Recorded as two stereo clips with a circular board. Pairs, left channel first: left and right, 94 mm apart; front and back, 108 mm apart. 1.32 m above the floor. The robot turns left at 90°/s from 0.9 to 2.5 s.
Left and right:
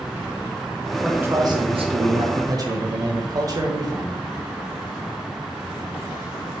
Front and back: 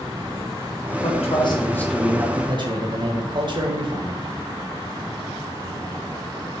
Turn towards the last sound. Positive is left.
turn(degrees=-135)